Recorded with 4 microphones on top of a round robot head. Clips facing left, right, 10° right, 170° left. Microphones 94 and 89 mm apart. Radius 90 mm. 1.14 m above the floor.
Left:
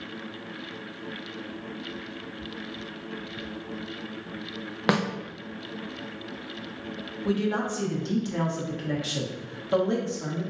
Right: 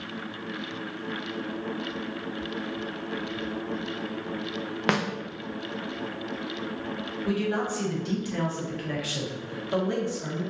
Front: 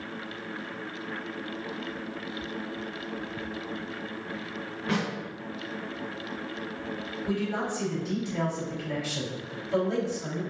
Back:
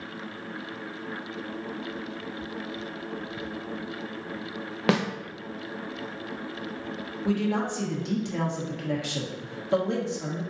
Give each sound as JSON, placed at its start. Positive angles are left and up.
{"t": 4.9, "sound": "a snare drum", "azimuth_deg": 170, "distance_m": 0.6}
{"t": 7.2, "sound": "a man speaking", "azimuth_deg": 155, "distance_m": 1.4}